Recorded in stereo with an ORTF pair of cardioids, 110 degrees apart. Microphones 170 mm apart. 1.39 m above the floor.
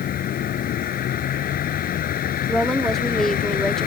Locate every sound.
0.0 s a vehicle: 60° left
2.5 s a woman speaking: 5° left